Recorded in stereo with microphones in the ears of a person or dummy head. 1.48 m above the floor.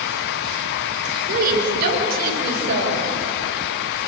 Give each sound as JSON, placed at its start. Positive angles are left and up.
{"t": 1.3, "sound": "a woman speaking", "side_deg": -55, "distance_m": 5.5}